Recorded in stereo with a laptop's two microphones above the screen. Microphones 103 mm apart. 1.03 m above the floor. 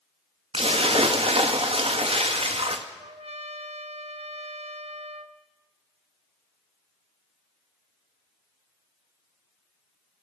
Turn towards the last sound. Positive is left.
turn(degrees=-80)